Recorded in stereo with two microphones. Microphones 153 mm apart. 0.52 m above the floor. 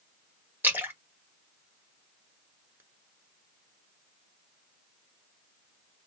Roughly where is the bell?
I don't hear a bell.